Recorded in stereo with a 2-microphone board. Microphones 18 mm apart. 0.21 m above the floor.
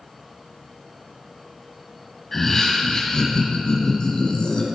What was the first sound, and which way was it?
Laughter, 20° left (ahead or behind).